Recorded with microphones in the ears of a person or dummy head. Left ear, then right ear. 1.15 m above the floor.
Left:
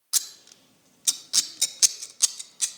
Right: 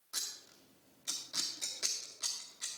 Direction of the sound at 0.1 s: 80° left.